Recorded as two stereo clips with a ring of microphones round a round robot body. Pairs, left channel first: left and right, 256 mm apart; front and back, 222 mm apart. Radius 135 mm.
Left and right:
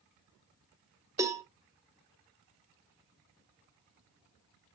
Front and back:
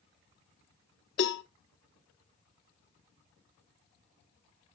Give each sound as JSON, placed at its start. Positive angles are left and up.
{"t": 1.2, "sound": "a cowbell", "azimuth_deg": -15, "distance_m": 0.9}